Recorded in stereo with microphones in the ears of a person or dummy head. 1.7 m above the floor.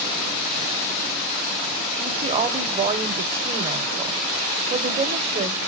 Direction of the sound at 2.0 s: 35° right (ahead or behind).